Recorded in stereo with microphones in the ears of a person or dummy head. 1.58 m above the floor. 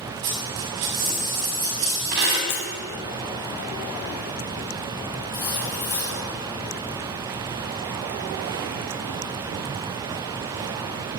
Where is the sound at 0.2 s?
55° right (ahead or behind), 6 m.